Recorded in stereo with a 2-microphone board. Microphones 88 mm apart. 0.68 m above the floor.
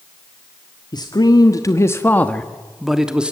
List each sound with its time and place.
0.9 s a man speaking: 55° left (ahead or behind), 1.6 m; by 3.3 s 10° right (ahead or behind), 1.8 m